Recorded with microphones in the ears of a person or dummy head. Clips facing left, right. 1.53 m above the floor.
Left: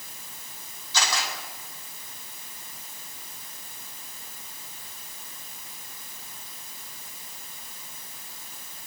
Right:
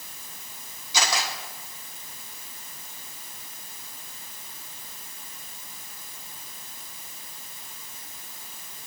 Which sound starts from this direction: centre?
A camera shutter, at 0.9 s.